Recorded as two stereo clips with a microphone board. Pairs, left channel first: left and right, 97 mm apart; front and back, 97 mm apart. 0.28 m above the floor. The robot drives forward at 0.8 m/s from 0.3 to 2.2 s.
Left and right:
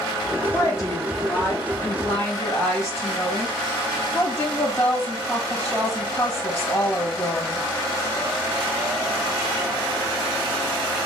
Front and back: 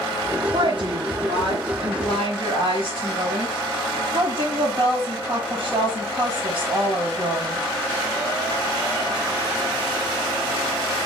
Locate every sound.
0.5 s a woman speaking: 145° left, 4 m; by 7.6 s 155° left, 5.5 m